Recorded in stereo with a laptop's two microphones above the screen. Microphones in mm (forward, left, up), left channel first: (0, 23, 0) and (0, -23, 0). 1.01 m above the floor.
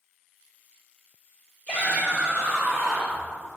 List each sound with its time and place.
1.7 s a shout: 20° left (ahead or behind), 3.5 m; by 3.2 s 5° right (ahead or behind), 3.5 m